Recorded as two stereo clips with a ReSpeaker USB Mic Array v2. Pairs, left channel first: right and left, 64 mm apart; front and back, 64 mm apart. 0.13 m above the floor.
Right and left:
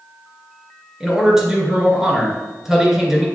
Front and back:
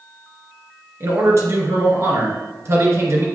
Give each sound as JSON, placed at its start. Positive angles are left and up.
{"t": 1.0, "sound": "a man speaking", "azimuth_deg": 170, "distance_m": 2.5}